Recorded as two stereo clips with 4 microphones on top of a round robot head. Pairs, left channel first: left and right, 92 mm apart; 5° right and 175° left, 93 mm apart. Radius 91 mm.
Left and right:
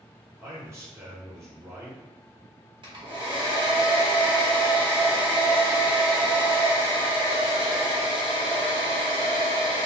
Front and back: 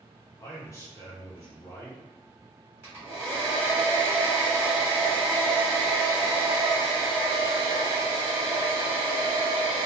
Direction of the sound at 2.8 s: 120° right.